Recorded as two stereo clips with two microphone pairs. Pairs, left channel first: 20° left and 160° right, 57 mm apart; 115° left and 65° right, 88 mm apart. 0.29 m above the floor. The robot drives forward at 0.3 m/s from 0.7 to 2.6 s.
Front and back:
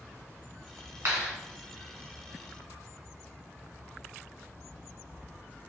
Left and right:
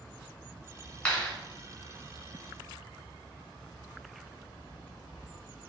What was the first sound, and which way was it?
A clap, 175° right.